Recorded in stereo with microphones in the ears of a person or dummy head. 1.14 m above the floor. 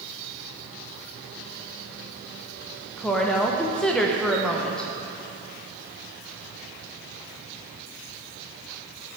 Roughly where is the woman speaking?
Centre.